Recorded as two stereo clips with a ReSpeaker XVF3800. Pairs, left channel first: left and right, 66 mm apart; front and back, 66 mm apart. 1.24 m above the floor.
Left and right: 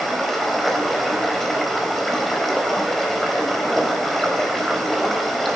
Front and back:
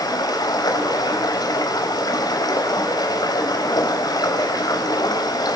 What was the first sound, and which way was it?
Running water, straight ahead.